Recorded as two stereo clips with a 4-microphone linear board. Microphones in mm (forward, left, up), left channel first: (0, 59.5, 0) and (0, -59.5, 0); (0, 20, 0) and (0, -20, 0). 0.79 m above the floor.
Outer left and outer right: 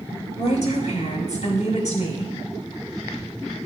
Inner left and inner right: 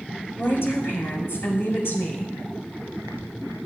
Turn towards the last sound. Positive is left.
turn(degrees=75)  # may be behind; listen again after turning